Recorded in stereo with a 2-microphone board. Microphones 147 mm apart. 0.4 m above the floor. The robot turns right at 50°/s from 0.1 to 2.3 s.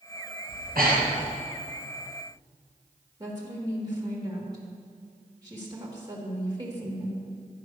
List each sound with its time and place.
0.5 s breathing: 80° right, 3 m; by 1.3 s 60° right (ahead or behind), 3 m
3.2 s a woman speaking: 30° right (ahead or behind), 1.5 m